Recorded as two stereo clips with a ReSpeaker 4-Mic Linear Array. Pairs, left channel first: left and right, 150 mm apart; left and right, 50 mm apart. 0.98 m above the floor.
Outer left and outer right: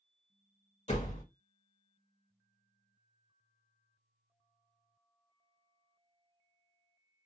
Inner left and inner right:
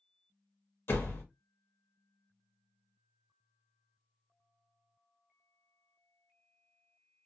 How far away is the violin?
I don't hear a violin.